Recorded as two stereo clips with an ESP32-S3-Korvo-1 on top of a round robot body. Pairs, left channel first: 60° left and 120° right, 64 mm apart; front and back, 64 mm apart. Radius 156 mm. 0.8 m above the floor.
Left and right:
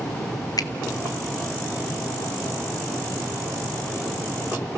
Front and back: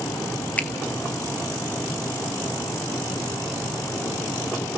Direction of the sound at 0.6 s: 65° left.